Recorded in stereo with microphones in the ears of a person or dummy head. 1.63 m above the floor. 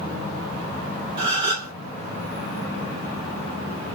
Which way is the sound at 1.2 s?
30° right (ahead or behind).